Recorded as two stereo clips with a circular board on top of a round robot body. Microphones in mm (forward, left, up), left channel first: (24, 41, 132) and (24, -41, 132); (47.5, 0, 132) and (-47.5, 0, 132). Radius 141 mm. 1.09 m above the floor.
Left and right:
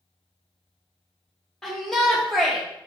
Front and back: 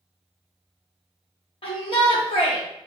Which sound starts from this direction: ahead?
A shout, at 1.6 s.